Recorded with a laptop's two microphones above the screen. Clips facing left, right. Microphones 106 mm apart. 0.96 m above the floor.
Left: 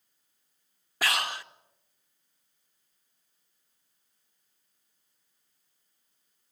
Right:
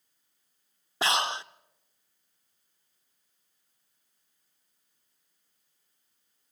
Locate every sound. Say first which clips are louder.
1.0 s breathing: right 3 dB; 25° right (ahead or behind), 0.6 m